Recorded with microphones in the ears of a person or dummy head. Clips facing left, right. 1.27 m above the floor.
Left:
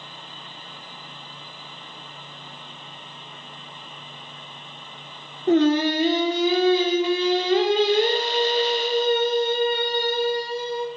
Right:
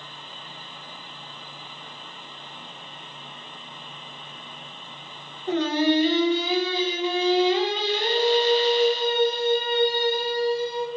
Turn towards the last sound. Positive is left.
turn(degrees=45)  # may be behind; listen again after turning